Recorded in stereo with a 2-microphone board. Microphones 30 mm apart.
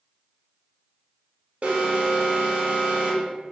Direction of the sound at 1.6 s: 50° right (ahead or behind).